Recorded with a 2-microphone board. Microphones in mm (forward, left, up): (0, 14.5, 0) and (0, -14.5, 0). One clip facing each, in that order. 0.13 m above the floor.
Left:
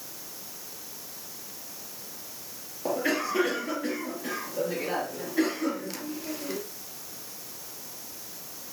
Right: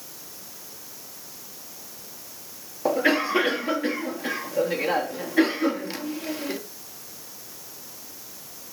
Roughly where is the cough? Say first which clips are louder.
Right 6 dB; right.